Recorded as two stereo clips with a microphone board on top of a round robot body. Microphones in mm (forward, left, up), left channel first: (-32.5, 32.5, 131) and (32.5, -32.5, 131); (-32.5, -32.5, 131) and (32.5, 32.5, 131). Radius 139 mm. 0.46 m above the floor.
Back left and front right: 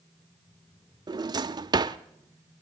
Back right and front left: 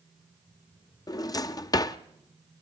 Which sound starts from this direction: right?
A drawer, at 1.1 s.